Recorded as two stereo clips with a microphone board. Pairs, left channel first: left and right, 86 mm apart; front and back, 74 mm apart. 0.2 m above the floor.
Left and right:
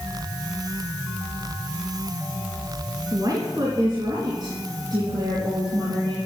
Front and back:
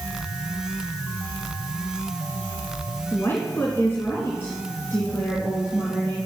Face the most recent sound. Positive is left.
turn(degrees=-65)